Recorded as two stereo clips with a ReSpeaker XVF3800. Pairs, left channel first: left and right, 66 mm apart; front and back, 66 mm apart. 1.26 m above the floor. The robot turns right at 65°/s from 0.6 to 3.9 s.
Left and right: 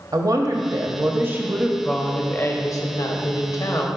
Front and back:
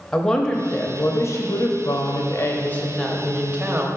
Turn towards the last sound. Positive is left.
turn(degrees=135)